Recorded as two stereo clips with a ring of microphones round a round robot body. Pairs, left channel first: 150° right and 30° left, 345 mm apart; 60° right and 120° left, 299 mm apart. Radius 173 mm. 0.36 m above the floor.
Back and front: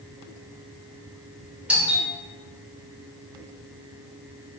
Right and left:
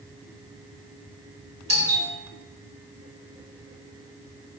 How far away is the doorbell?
About 1.2 m.